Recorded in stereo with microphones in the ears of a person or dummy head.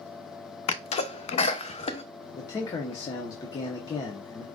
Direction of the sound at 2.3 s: 20° left (ahead or behind).